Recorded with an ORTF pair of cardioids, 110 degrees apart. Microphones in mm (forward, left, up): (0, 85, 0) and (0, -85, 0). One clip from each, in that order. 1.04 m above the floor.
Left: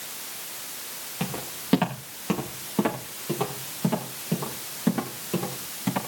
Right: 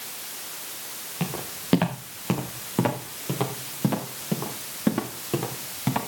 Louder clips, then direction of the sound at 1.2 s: Right 1 dB; 10° right.